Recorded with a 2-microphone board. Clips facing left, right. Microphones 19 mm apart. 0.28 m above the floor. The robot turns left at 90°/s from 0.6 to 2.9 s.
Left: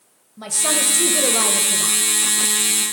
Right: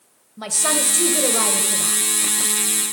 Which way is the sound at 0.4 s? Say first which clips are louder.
Even; 20° right (ahead or behind).